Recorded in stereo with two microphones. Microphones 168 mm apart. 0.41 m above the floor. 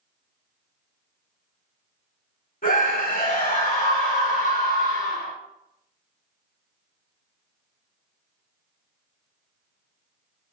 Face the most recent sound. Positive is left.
turn(degrees=65)  # may be behind; listen again after turning